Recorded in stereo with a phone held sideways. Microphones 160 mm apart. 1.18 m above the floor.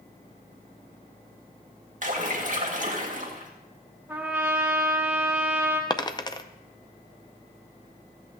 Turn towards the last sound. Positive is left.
turn(degrees=25)  # may be behind; listen again after turning